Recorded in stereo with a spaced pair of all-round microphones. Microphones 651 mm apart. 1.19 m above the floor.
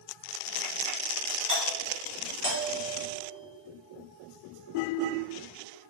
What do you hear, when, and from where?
1.5 s a doorbell: 20° right (ahead or behind), 3 m